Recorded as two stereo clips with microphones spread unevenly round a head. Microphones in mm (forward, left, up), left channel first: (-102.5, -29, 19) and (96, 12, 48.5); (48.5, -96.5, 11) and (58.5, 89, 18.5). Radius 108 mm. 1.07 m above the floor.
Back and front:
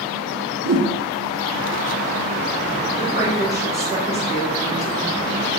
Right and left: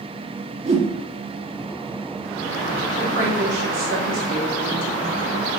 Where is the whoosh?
30° left, 1.4 m.